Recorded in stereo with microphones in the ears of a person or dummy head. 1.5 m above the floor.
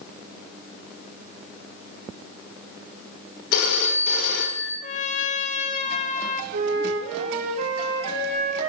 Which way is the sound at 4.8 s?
35° left (ahead or behind).